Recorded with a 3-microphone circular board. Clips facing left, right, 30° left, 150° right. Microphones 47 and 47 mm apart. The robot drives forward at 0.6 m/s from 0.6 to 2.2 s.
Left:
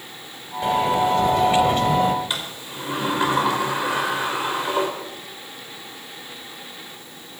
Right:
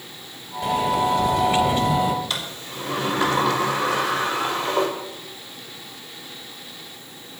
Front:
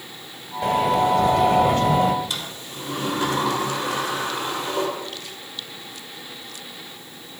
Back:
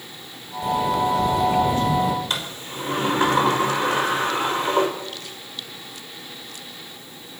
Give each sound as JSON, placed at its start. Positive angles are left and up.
{"t": 0.6, "sound": "a sliding door", "azimuth_deg": 30, "distance_m": 2.5}
{"t": 2.3, "sound": "a sliding door", "azimuth_deg": 160, "distance_m": 4.5}